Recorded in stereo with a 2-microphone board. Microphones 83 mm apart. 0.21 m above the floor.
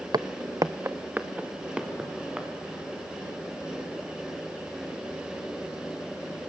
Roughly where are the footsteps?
Right.